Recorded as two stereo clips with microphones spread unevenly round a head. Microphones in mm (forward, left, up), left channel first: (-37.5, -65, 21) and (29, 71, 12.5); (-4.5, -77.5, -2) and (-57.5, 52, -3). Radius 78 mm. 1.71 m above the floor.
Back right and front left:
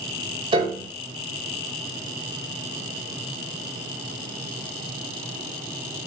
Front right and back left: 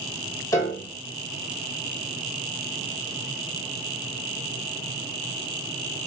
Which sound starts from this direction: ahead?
A piano, at 0.5 s.